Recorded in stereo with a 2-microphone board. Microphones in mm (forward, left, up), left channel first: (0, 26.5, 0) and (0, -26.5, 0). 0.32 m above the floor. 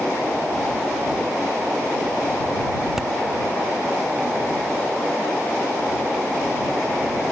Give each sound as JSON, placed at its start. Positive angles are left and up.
{"t": 3.0, "sound": "hammering", "side_deg": -10}